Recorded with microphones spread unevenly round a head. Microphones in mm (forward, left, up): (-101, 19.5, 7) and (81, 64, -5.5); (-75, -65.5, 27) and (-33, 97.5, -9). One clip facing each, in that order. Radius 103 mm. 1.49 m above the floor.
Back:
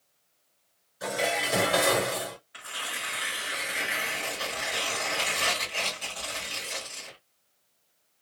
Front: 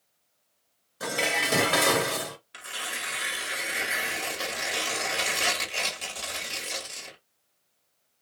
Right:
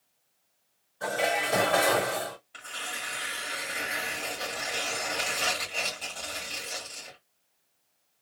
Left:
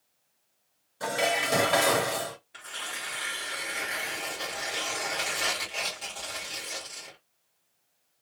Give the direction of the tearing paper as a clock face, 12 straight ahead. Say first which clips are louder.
Front 1 dB, right 1 dB; 1 o'clock.